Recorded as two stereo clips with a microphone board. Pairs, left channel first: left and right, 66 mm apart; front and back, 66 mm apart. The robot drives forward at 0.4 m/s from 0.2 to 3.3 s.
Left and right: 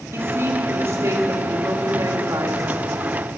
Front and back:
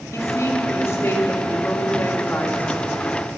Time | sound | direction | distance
0.1 | a woman speaking | 40° right | 2.5 m